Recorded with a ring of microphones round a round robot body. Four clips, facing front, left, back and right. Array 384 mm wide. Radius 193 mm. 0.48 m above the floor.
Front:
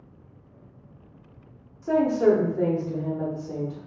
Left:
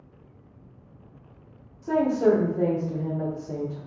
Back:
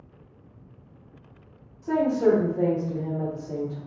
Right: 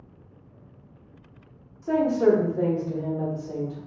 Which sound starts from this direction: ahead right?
A woman speaking, at 1.8 s.